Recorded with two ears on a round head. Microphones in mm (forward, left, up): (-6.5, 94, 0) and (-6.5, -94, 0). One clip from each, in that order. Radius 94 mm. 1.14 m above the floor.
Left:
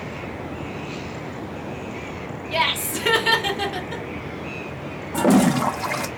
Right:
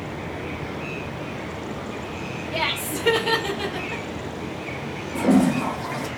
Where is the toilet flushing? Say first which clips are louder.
Left 2 dB; 50° left (ahead or behind), 0.5 m.